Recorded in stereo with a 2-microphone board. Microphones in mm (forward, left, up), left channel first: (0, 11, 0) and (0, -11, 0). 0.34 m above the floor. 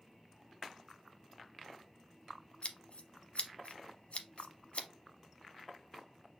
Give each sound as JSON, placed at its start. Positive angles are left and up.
{"t": 2.6, "sound": "scissors", "side_deg": 70, "distance_m": 0.7}